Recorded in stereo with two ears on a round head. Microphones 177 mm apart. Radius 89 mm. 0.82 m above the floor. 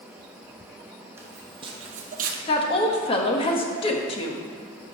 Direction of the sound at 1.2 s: 15° right (ahead or behind).